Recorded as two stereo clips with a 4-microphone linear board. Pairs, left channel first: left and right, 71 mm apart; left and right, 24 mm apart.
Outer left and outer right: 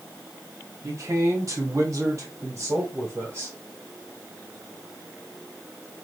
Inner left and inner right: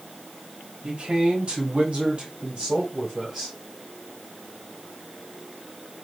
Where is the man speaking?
45° right (ahead or behind), 1.4 m; by 3.5 s 40° right (ahead or behind), 2.5 m.